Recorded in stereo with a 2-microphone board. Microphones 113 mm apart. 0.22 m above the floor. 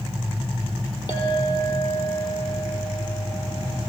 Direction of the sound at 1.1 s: 40° left (ahead or behind).